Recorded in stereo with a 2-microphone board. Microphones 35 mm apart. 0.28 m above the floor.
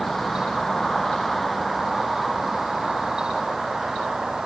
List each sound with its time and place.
0.0 s a vehicle: 10° left (ahead or behind); by 4.5 s 10° right (ahead or behind)